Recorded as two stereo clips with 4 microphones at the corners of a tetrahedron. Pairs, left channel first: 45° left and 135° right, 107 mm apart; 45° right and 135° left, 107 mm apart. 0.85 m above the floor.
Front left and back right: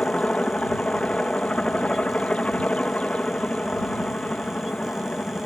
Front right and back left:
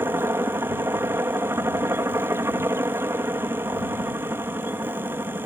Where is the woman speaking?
No woman speaking in this recording.